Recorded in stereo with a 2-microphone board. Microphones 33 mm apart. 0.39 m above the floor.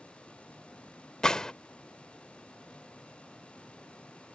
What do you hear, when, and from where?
1.2 s a gunshot: 25° left (ahead or behind)